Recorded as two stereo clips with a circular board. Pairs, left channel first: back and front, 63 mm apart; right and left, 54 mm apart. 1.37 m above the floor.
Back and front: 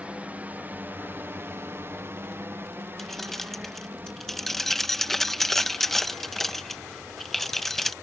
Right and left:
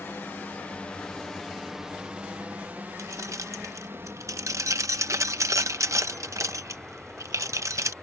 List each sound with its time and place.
0.0 s a drone: 60° right; by 8.0 s 65° left
3.0 s keys jangling: 95° left